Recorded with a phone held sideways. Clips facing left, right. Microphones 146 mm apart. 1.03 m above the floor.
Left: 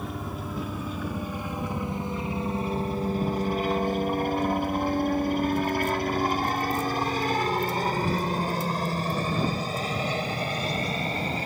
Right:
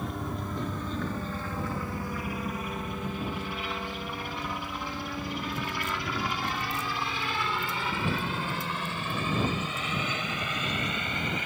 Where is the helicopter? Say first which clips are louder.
Even; centre (ahead or behind); by 11.5 s 35° left (ahead or behind).